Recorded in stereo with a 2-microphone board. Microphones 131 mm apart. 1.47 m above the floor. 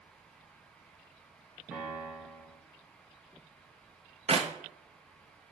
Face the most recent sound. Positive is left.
turn(degrees=-50)  # may be behind; listen again after turning